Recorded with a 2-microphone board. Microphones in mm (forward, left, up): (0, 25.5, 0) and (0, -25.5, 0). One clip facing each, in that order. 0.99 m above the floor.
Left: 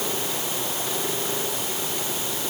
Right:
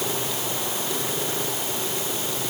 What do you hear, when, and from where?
Only background noise.